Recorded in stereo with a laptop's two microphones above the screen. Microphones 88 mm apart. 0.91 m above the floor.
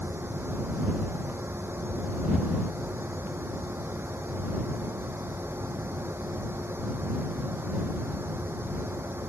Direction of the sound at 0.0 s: 25° right (ahead or behind).